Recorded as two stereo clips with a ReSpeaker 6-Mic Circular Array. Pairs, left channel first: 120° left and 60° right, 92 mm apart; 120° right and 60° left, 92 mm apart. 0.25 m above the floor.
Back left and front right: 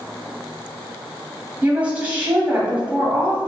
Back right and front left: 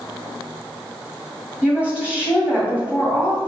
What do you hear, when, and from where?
1.6 s a woman speaking: 5° right, 1.7 m